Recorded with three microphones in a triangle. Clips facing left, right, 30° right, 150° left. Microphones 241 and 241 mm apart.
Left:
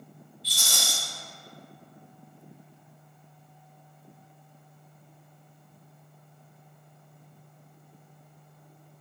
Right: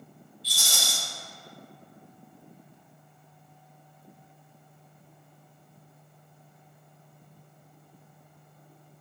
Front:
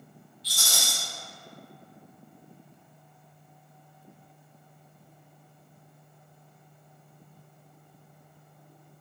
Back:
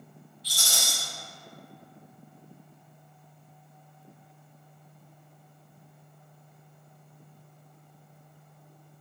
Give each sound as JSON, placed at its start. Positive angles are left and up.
{"t": 0.4, "sound": "a rattle", "azimuth_deg": 180, "distance_m": 1.7}